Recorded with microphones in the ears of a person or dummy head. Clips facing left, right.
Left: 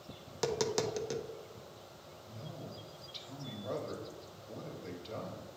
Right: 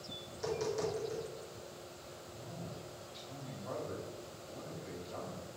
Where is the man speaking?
40° left (ahead or behind), 1.3 m.